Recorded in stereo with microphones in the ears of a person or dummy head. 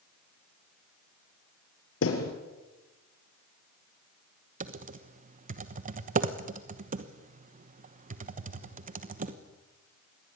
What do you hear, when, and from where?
2.0 s a thud: 75° left (ahead or behind), 4.5 m
4.6 s typing on a keyboard: 40° right (ahead or behind), 1.2 m